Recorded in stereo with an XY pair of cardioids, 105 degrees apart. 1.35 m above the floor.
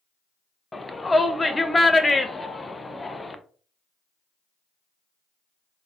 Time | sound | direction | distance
0.7 | a shout | 15° left | 0.6 m